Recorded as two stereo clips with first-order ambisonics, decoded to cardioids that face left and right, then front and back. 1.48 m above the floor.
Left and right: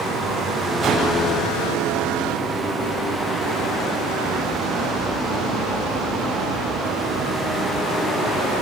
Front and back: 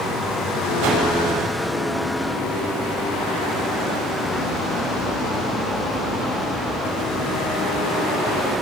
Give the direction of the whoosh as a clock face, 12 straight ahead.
5 o'clock.